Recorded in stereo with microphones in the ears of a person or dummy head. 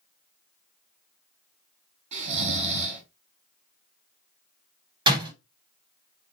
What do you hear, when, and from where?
2.1 s snoring: 45° right (ahead or behind), 4.5 m
5.1 s a door slam: 30° right (ahead or behind), 2.5 m